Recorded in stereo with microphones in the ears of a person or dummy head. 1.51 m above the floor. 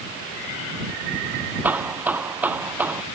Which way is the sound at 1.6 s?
15° right (ahead or behind).